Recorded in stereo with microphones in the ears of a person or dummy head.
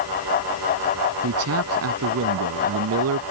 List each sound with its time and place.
1.2 s a man speaking: 80° right